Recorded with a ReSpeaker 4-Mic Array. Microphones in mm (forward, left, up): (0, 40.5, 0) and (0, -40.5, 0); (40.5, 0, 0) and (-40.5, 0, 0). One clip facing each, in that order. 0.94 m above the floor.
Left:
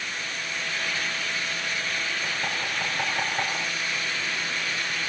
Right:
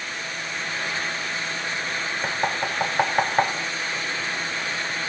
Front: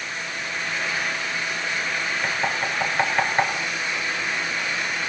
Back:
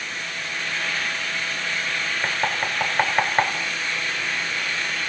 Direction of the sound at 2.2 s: 110° right.